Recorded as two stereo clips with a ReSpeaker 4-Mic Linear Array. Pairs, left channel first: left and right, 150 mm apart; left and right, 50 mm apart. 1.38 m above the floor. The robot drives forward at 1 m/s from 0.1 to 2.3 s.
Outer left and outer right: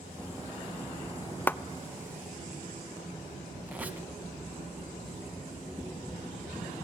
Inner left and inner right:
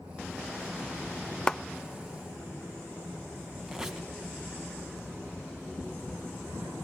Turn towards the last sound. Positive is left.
turn(degrees=-10)  # may be behind; listen again after turning